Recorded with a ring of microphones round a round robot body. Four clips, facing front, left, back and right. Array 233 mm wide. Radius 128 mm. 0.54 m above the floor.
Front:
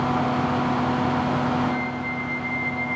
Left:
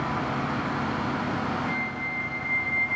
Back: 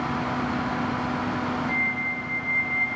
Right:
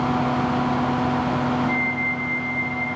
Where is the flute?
40° left, 1.0 m.